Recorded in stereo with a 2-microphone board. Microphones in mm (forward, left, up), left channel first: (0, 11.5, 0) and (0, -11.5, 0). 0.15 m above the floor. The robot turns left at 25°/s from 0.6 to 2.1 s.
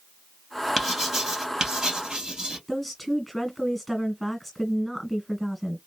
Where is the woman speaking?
5° left (ahead or behind), 1.5 m.